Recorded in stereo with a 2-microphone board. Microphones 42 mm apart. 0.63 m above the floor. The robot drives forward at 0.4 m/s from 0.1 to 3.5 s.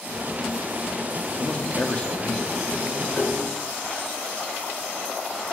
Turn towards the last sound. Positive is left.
turn(degrees=30)  # may be behind; listen again after turning